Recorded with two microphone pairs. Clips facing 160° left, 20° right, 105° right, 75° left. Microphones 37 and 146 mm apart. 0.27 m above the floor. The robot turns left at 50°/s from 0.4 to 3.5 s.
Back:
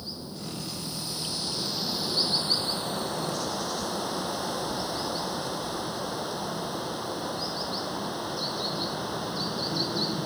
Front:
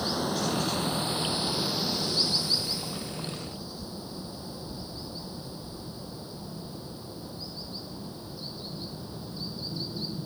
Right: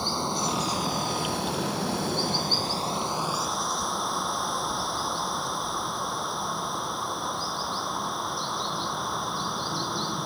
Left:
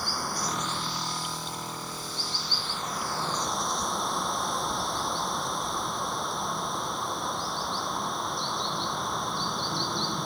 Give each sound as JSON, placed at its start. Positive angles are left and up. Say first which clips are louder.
{"t": 0.0, "sound": "running water", "louder": "front 10 dB, right 4 dB", "azimuth_deg": -40}